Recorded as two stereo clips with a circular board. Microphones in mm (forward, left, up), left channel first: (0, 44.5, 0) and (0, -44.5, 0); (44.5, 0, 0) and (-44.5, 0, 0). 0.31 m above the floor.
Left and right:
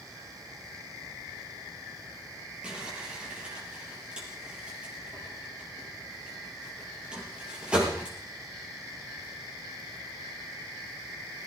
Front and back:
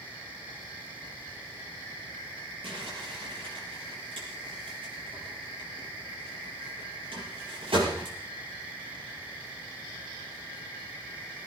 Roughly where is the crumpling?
Behind.